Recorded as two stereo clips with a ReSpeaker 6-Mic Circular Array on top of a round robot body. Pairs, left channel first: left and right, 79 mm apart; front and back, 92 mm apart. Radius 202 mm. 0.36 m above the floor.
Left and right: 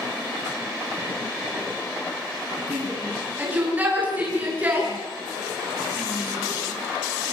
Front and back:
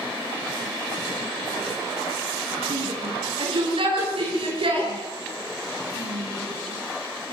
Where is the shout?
160° right, 8.5 m.